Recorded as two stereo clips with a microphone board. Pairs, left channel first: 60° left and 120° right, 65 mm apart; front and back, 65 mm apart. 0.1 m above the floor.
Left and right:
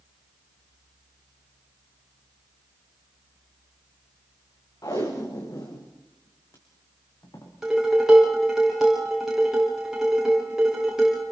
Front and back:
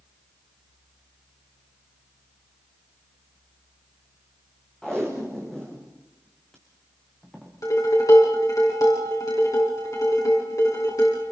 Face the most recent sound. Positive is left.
turn(degrees=-35)